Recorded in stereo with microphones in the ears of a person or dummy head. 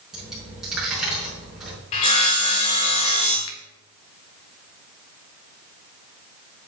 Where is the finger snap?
85° left, 1.4 m.